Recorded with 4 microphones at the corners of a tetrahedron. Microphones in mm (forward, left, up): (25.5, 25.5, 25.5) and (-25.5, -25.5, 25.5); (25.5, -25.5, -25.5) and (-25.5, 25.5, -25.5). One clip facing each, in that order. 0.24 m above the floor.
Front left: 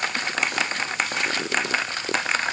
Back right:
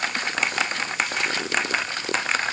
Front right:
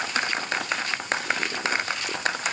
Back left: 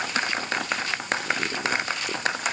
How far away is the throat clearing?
I don't hear throat clearing.